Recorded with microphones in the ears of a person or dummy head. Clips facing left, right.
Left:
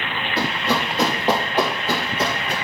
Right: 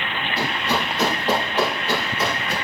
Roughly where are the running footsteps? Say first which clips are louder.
Left 2 dB; left.